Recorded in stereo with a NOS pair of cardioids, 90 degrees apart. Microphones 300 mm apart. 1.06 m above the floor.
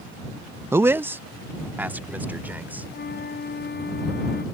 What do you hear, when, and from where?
0.7 s a man speaking: 10° right; by 2.9 s 5° right
2.9 s a flute: 35° left